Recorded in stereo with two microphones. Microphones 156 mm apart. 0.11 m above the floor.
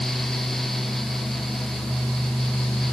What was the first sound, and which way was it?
Only background noise.